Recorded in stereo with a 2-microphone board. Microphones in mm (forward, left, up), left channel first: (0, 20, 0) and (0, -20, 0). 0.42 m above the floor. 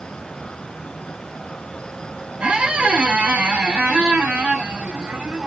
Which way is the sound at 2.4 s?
30° right (ahead or behind).